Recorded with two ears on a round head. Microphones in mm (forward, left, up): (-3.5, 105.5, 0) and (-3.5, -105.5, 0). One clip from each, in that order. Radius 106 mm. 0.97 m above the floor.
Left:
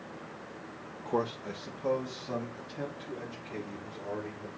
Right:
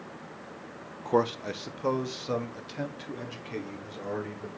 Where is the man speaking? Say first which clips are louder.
Right 6 dB; 15° right (ahead or behind), 0.6 m; by 4.5 s 60° right (ahead or behind), 3 m.